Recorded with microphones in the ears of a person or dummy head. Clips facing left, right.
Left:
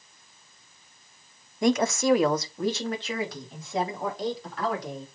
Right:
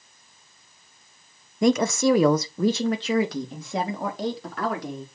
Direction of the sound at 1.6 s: 70° right (ahead or behind).